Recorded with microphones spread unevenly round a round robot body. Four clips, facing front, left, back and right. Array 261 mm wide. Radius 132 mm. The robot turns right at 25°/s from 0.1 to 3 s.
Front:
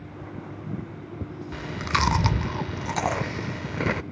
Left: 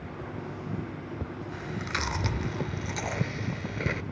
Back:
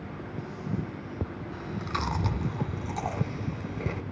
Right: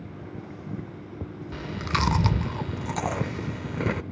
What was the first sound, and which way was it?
Chewing, 55° right.